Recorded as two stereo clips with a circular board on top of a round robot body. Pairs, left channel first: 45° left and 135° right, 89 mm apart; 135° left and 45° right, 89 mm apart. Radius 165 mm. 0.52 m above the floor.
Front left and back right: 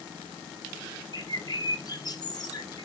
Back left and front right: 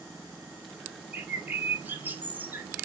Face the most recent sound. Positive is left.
turn(degrees=20)